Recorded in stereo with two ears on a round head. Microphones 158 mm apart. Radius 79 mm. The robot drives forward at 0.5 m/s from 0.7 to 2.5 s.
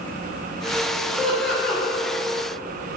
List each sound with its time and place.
1.2 s laughter: 5° left (ahead or behind), 2 m